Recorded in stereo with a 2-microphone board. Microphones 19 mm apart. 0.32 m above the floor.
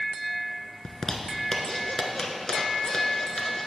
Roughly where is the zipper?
Left.